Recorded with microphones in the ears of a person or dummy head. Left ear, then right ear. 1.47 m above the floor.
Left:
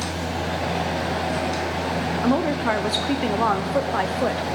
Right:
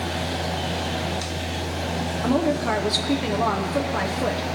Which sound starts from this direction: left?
A woman speaking, at 2.2 s.